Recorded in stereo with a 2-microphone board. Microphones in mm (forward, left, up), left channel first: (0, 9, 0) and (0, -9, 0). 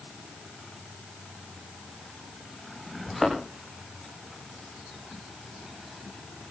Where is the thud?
Centre (ahead or behind), 9 m.